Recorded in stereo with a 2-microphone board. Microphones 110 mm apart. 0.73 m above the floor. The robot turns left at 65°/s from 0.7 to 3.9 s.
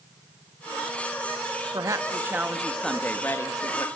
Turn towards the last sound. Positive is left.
turn(degrees=105)